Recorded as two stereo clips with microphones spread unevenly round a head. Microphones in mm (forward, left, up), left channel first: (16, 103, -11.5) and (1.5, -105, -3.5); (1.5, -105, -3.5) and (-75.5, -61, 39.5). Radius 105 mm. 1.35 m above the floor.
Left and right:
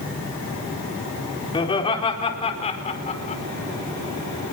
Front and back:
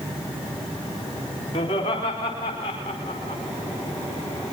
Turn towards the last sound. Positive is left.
turn(degrees=25)